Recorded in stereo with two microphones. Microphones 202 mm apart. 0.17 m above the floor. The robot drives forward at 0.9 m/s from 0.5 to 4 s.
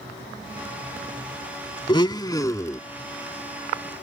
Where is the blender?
25° left (ahead or behind); by 2.8 s 15° left (ahead or behind).